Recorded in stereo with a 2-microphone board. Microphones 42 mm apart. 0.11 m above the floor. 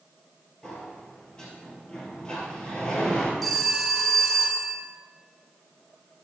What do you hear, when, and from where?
0.6 s a sliding door: 15° left (ahead or behind), 1.6 m
3.4 s a phone ringing: 5° left (ahead or behind), 1.0 m